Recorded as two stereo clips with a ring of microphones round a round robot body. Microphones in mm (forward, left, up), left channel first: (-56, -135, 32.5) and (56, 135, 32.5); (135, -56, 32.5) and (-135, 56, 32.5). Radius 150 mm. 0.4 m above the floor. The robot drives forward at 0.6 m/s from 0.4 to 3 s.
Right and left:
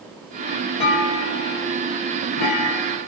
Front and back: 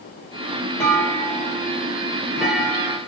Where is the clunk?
105° right, 7.5 m; by 3.0 s 115° right, 8 m.